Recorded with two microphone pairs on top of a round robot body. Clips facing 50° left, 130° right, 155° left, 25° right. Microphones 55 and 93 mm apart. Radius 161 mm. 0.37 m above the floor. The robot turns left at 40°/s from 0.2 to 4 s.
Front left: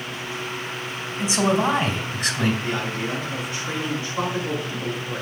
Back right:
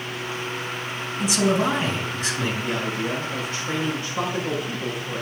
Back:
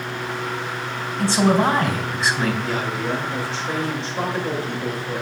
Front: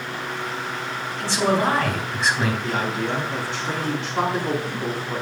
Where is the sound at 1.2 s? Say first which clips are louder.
Front left 1 dB, back 3 dB; 100° left, 2.5 m; by 2.5 s 50° left, 2.5 m.